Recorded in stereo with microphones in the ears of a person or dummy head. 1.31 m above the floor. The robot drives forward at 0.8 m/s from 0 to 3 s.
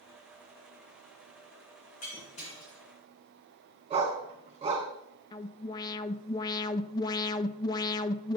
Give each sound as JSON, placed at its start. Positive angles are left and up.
{"t": 2.0, "sound": "breaking glass", "side_deg": 35, "distance_m": 3.5}
{"t": 3.9, "sound": "a dog barking", "side_deg": -30, "distance_m": 2.5}
{"t": 5.3, "sound": "an alarm", "side_deg": 20, "distance_m": 0.5}